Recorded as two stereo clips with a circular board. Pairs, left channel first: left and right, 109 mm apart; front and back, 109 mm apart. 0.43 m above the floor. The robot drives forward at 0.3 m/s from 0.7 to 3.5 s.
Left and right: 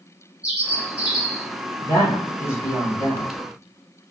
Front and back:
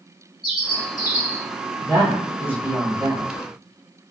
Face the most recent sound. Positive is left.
turn(degrees=140)